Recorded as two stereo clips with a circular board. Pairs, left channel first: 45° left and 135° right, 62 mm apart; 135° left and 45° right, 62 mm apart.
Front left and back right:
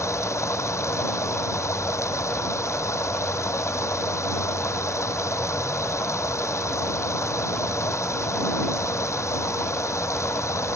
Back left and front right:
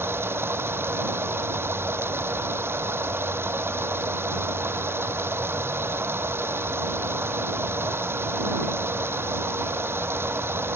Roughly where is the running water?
Ahead.